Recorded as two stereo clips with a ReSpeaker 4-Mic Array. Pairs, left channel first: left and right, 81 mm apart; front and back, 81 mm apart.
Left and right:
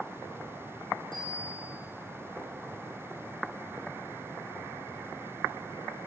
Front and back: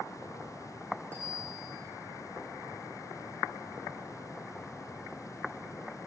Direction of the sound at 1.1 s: 70° left.